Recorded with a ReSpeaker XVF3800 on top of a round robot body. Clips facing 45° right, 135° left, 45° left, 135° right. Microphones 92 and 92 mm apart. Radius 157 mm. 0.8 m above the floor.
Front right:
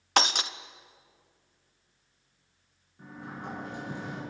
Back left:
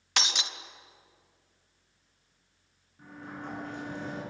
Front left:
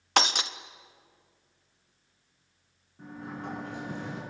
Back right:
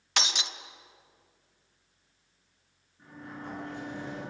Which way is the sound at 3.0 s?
35° left.